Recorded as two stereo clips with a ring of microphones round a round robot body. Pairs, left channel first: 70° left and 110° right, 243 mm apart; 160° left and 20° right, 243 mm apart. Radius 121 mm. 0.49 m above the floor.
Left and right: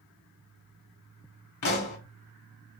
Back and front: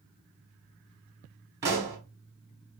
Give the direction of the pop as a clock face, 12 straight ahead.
10 o'clock.